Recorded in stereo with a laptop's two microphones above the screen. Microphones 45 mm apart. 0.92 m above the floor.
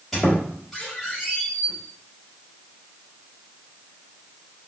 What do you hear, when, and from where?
0.1 s a squeak: centre (ahead or behind), 1.2 m